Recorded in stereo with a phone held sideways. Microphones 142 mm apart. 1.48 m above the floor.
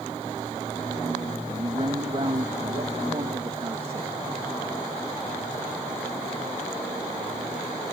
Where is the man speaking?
40° right (ahead or behind).